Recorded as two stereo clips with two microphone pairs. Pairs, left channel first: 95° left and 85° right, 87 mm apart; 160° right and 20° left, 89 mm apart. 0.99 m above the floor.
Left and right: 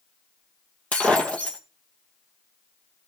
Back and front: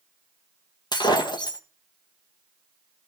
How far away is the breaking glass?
About 2.5 m.